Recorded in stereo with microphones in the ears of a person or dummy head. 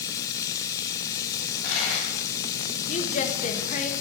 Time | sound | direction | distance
0.0 | running water | 20° left (ahead or behind) | 0.8 m
1.4 | a dropped coin | 55° left (ahead or behind) | 3.5 m
2.9 | a woman speaking | 40° left (ahead or behind) | 1.2 m